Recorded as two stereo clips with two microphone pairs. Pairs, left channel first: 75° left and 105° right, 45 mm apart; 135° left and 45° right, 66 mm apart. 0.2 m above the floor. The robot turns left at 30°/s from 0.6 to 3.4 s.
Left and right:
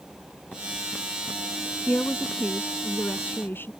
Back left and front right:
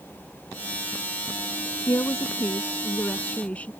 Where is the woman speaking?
120° left; by 3.7 s 70° left.